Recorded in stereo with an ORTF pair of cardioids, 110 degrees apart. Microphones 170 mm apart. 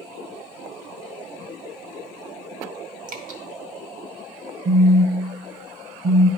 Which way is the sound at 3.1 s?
55° right.